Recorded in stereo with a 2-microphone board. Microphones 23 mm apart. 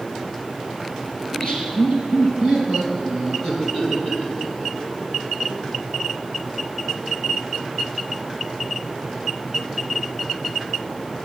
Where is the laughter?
40° left (ahead or behind), 3.5 m; by 5.7 s 30° left (ahead or behind), 7.5 m.